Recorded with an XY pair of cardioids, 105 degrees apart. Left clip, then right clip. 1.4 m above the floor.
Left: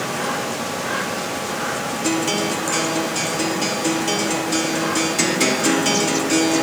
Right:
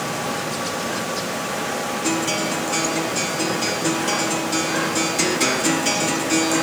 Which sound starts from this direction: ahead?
A guitar, at 2.0 s.